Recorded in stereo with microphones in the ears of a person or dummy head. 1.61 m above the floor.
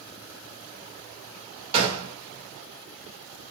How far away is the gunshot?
About 1.3 m.